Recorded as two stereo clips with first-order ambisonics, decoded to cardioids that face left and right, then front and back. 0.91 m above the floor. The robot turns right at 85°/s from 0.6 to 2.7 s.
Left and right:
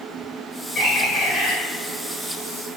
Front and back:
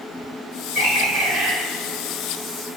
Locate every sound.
0.8 s a bird: 155° left, 1.1 m; by 1.5 s 140° right, 1.1 m